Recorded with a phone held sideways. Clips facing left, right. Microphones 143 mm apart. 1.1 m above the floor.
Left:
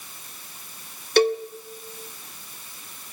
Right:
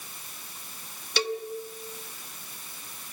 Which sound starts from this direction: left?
A cowbell, at 1.2 s.